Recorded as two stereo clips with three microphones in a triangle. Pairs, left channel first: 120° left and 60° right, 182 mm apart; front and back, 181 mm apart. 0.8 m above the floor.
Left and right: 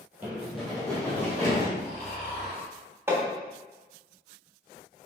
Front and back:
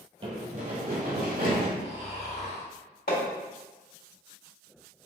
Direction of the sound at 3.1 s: 15° left.